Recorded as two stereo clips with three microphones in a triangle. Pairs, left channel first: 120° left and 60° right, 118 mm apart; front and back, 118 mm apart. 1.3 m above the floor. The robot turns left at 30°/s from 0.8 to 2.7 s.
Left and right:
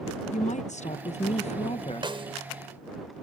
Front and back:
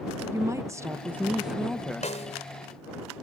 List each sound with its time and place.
0.3 s a woman speaking: 115° left; by 2.1 s 75° left
2.0 s a snare drum: 15° right; by 2.4 s 25° right